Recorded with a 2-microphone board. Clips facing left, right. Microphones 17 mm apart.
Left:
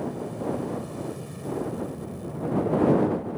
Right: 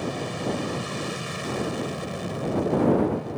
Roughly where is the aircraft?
Right.